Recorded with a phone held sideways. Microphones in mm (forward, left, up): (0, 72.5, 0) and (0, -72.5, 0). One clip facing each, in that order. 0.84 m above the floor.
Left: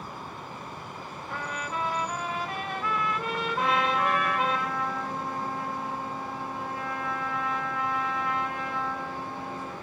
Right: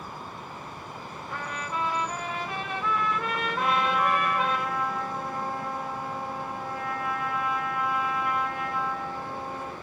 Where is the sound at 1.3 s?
Centre (ahead or behind), 2.5 m.